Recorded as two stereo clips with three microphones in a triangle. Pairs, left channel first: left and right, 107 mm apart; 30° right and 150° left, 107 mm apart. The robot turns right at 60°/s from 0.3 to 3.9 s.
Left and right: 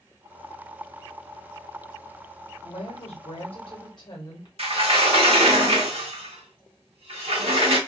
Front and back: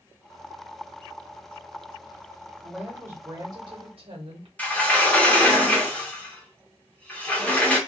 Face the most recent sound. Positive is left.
turn(degrees=-105)